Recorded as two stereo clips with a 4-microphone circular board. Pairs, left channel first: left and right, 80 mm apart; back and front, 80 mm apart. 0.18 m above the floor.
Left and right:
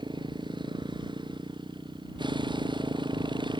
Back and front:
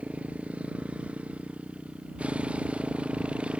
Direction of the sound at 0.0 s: 75° right.